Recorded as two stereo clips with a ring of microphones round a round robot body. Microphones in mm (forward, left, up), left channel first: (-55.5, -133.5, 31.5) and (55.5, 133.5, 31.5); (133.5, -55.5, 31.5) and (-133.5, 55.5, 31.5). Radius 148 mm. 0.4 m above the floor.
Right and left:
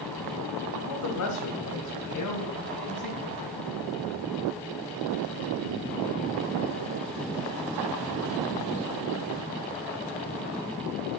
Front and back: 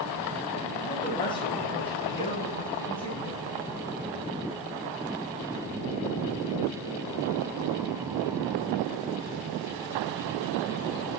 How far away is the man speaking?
About 1.9 m.